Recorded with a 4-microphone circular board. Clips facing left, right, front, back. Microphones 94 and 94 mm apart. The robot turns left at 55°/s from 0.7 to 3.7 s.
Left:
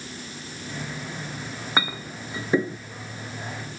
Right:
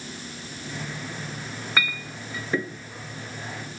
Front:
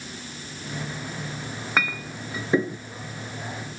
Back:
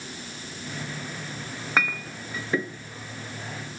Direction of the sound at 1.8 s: 90° left.